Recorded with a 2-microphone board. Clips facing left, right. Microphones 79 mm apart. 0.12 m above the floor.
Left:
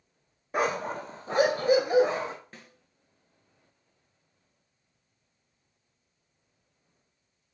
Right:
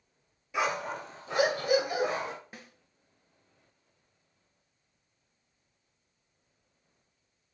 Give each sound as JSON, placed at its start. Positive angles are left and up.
{"t": 0.5, "sound": "a dog barking", "side_deg": 45, "distance_m": 1.0}
{"t": 2.5, "sound": "a snare drum", "side_deg": -10, "distance_m": 1.9}